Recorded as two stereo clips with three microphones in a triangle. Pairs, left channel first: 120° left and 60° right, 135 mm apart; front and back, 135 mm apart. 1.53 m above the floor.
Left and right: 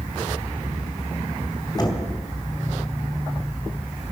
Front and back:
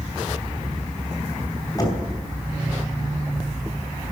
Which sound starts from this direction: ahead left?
Knocking, at 1.8 s.